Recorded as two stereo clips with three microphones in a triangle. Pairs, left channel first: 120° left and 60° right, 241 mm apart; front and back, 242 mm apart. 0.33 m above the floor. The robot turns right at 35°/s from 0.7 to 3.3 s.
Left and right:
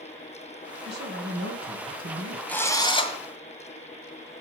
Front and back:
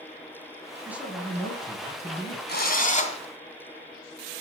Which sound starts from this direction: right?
A man speaking, at 0.8 s.